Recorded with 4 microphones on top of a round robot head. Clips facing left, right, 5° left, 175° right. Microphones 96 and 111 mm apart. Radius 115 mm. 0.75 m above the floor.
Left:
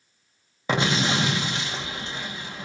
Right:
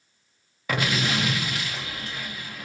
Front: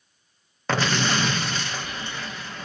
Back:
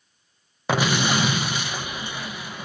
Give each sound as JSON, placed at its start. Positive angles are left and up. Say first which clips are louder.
{"t": 0.7, "sound": "an explosion", "louder": "left 3 dB, back 2 dB", "azimuth_deg": 120, "distance_m": 0.5}